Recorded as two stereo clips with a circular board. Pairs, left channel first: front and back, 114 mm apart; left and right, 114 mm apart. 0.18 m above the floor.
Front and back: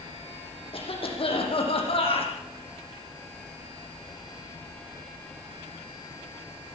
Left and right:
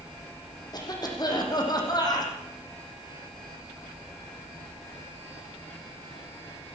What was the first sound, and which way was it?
A cough, 35° left.